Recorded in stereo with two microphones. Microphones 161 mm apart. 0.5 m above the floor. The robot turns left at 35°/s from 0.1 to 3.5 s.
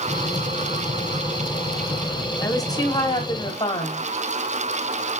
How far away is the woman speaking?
About 1.1 m.